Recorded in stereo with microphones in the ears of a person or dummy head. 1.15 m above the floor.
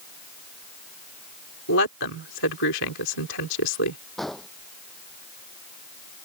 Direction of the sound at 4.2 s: Centre (ahead or behind).